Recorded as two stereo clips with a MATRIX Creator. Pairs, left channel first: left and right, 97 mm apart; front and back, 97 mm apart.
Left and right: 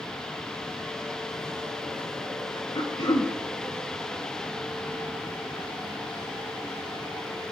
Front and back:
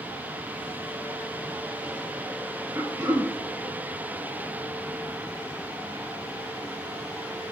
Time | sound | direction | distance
2.8 | throat clearing | 120° left | 4 m